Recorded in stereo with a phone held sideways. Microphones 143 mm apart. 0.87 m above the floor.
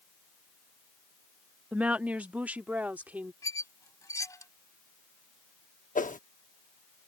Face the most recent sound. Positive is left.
turn(degrees=65)  # may be behind; listen again after turning